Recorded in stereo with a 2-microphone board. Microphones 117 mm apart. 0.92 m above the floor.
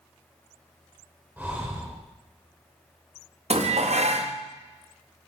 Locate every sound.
1.4 s breathing: 15° right (ahead or behind), 1.3 m
3.5 s dishes clattering: 65° right (ahead or behind), 0.5 m